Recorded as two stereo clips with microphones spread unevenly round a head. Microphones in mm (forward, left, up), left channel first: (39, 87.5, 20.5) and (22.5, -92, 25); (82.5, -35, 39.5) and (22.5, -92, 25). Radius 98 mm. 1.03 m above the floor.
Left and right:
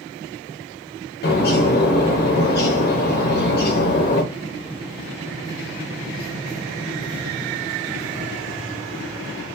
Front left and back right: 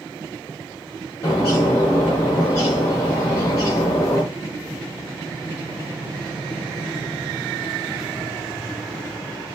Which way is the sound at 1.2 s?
95° left.